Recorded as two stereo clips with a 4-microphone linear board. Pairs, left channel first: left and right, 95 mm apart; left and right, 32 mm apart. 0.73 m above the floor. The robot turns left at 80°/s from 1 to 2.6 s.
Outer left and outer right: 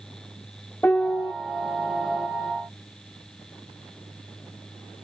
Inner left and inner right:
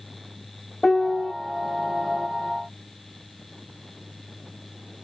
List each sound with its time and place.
0.8 s a piano: 20° left (ahead or behind); by 1.3 s 40° left (ahead or behind)